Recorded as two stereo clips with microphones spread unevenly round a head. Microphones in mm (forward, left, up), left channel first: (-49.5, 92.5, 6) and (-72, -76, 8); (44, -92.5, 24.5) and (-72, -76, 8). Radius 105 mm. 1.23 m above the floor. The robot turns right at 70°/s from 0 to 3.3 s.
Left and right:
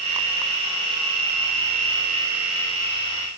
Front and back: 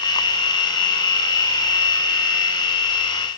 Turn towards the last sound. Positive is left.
No sound to turn to.